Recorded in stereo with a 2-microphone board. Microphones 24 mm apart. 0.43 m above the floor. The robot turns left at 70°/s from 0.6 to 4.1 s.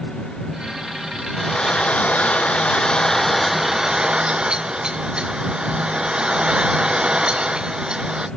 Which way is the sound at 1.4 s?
150° left.